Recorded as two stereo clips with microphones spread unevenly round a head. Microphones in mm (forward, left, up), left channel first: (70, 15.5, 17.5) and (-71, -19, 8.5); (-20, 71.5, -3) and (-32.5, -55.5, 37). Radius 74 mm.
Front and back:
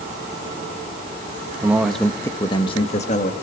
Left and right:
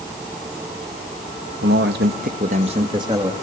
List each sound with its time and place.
1.6 s a man speaking: 90° right, 1.6 m; by 3.3 s 25° right, 2 m